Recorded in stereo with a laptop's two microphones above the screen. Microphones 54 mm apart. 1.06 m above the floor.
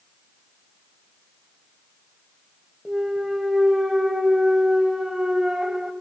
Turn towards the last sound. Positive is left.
turn(degrees=-5)  # may be behind; listen again after turning